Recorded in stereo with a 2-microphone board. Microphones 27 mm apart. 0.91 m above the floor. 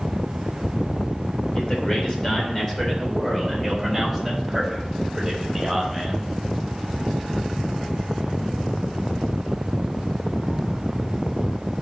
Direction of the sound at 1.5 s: 35° left (ahead or behind).